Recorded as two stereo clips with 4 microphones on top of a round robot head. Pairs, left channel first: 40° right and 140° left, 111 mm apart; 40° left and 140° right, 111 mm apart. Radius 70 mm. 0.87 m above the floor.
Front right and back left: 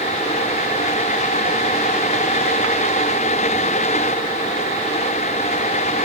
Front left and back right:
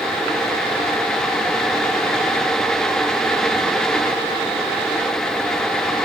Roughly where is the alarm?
No alarm in this recording.